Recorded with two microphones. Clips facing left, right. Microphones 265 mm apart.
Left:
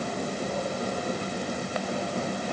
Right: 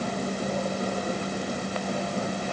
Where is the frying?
No frying in this recording.